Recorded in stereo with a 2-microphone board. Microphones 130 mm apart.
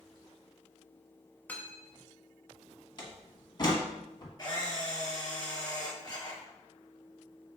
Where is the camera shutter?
30° left (ahead or behind), 1.5 m.